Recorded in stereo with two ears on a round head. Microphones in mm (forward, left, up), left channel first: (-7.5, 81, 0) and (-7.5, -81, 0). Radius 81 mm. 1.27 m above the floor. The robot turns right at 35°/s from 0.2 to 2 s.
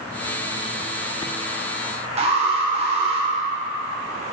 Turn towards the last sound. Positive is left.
turn(degrees=-35)  # may be behind; listen again after turning